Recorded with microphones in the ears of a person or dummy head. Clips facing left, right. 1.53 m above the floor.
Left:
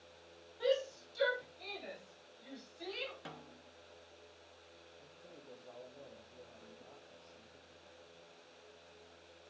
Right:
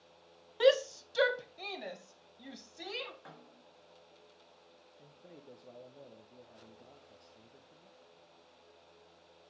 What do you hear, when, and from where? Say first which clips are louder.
0.6 s a shout: right 8 dB; 75° right (ahead or behind), 0.7 m; by 3.1 s 85° right, 2.5 m
3.2 s a snare drum: left 3 dB; 45° left (ahead or behind), 1.2 m
5.0 s a man speaking: right 4 dB; 20° right (ahead or behind), 1.0 m